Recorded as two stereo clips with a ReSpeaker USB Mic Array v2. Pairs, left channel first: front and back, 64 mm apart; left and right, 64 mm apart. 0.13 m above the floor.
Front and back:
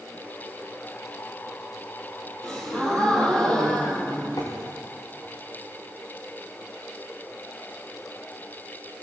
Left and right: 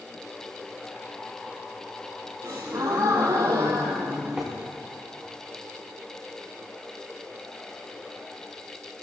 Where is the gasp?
75° right, 4.5 m.